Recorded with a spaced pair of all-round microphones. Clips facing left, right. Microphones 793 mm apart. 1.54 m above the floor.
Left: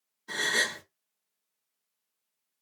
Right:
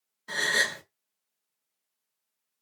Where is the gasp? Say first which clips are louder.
Right 1 dB; 20° right (ahead or behind), 0.5 m.